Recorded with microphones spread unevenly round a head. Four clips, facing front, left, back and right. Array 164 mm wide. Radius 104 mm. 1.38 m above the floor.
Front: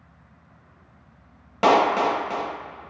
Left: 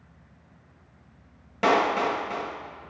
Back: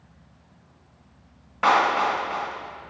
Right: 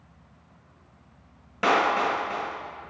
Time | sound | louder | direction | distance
1.6 | a clap | even, front 2 dB | 40° left | 1.0 m